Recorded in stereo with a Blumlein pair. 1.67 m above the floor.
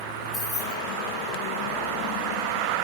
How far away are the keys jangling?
About 3 m.